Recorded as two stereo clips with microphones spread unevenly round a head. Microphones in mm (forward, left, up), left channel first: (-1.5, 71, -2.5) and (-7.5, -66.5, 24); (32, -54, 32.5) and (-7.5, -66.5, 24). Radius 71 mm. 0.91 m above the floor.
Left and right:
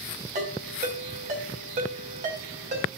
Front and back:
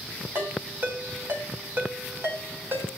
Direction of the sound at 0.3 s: 130° right.